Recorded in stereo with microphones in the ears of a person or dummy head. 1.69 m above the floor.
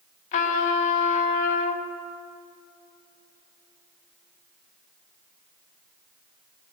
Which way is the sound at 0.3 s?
40° left (ahead or behind).